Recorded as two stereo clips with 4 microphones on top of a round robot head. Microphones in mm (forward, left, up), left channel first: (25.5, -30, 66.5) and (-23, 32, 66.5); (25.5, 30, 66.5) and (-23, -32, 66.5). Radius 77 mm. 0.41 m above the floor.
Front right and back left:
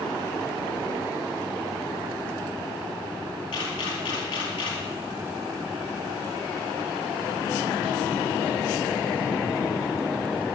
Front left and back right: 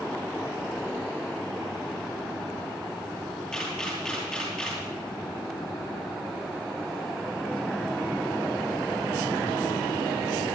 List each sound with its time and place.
3.5 s a camera shutter: 30° right, 8 m